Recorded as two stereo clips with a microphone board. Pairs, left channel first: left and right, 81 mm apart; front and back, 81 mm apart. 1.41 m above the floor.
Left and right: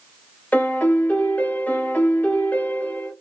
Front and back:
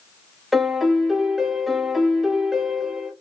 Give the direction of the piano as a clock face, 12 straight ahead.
9 o'clock.